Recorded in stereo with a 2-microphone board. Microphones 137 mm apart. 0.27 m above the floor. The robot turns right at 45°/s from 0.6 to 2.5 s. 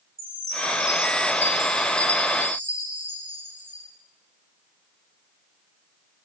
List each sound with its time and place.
0.2 s a chime: 15° right, 2.5 m; by 3.9 s 70° left, 2.5 m